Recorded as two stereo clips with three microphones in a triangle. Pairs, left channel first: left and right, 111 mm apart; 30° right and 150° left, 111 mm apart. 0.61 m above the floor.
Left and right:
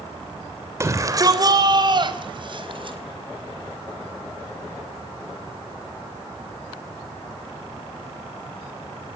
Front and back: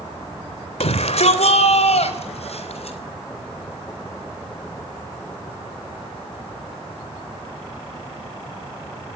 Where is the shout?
30° right, 2.5 m; by 3.0 s 50° right, 5 m.